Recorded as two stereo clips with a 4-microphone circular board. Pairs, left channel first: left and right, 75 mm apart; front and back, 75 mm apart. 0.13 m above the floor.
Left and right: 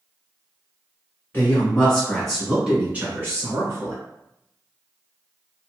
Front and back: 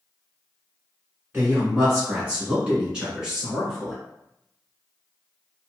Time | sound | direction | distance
1.3 | a woman speaking | 135° left | 1.4 m